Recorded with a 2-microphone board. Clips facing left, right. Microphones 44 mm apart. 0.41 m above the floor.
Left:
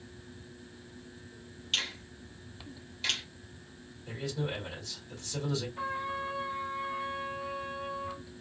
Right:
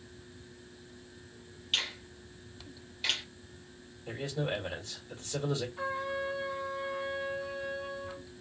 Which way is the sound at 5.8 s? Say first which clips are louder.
Even; 25° left (ahead or behind).